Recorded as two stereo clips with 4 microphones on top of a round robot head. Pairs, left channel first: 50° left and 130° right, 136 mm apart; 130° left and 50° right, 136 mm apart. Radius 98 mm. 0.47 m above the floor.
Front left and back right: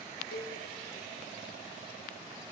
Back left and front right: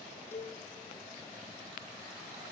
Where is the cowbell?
55° left, 3.5 m.